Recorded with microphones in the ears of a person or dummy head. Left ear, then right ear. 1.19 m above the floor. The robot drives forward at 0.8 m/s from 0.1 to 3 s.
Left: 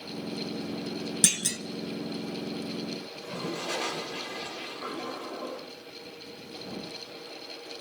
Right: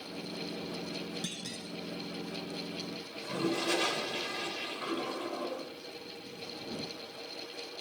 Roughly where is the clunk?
Left.